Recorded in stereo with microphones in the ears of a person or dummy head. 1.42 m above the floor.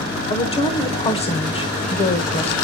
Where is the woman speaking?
30° left (ahead or behind), 1.1 m.